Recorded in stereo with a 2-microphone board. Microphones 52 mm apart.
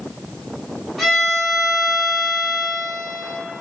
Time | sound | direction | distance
1.0 | a violin | 10° left (ahead or behind) | 1.1 m